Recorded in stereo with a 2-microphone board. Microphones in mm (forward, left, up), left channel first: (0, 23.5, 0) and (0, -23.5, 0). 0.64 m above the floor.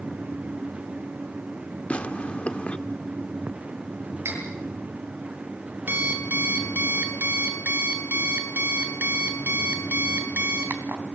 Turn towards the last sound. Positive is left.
turn(degrees=-50)  # may be behind; listen again after turning